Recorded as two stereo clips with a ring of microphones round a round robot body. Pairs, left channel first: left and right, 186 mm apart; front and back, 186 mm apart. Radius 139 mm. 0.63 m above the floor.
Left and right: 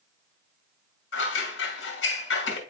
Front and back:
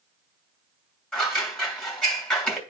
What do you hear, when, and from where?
1.1 s scissors: 85° left, 3 m